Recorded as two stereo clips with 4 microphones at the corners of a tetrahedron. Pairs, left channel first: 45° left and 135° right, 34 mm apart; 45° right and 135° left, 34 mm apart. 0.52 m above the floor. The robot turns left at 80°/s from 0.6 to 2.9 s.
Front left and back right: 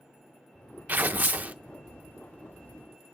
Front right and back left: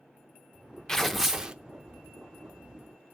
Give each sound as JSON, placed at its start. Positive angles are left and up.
{"t": 0.9, "sound": "tearing paper", "azimuth_deg": -120, "distance_m": 0.5}